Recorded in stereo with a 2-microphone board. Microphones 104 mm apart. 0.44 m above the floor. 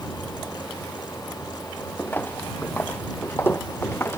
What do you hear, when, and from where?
2.0 s footsteps: 20° left (ahead or behind); by 4.2 s 25° left (ahead or behind)